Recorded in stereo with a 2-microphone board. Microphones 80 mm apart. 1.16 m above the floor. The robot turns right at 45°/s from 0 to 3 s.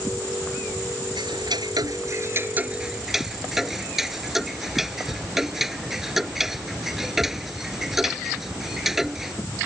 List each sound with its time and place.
1.2 s ticking: 85° right; by 9.3 s 5° right (ahead or behind)